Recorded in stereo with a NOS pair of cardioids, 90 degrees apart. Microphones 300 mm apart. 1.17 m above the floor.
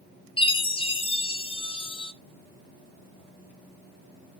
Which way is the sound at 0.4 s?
20° left.